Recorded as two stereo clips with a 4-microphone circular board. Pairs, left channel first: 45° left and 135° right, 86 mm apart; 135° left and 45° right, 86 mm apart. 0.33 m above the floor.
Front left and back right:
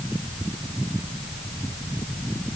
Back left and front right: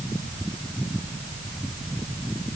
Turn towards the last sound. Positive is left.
No sound to turn to.